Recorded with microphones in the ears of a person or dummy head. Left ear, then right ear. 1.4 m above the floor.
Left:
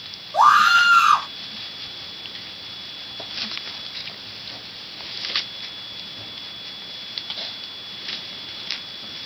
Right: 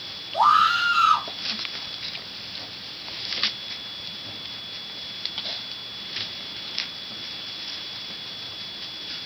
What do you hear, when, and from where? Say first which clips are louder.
0.3 s a scream: left 4 dB; 55° left (ahead or behind), 2 m